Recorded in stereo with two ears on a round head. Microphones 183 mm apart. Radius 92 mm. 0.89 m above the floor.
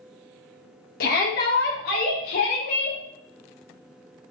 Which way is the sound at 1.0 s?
45° left (ahead or behind).